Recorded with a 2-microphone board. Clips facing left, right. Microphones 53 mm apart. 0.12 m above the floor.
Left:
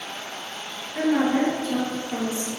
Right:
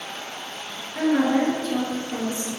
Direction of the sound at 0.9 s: 5° left (ahead or behind).